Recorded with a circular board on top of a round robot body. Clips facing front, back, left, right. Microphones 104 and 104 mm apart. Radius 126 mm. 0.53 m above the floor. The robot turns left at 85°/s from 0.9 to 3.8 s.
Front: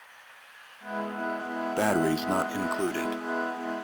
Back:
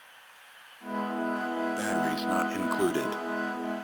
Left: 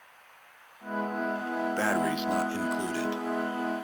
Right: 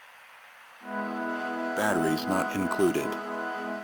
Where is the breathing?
10° right, 0.5 m; by 3.9 s 175° left, 0.5 m.